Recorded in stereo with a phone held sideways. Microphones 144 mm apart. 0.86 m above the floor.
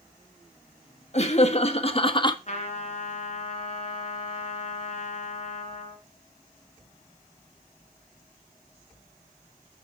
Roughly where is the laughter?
Left.